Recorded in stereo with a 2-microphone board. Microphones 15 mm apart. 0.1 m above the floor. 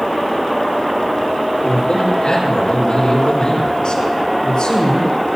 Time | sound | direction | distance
1.6 | a man speaking | 65° left (ahead or behind) | 4.5 m